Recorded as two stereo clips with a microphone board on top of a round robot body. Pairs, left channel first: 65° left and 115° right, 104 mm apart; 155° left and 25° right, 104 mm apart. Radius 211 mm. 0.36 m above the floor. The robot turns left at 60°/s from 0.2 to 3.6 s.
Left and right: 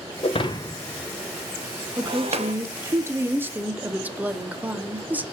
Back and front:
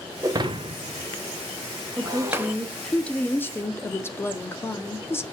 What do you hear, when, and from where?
0.2 s breaking glass: 35° left, 0.8 m; by 2.5 s 105° right, 0.8 m
2.0 s a woman speaking: 70° right, 1.1 m; by 5.2 s 170° right, 1.1 m